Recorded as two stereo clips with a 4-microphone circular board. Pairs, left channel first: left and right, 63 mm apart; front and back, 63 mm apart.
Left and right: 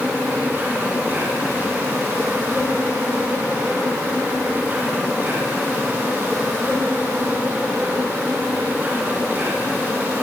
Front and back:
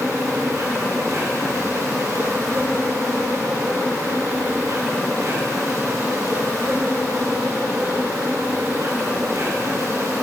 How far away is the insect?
About 7 m.